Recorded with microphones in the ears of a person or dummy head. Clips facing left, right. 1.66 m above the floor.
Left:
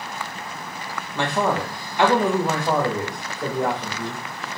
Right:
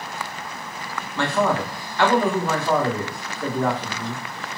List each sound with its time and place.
1.1 s a man speaking: 15° left (ahead or behind), 0.9 m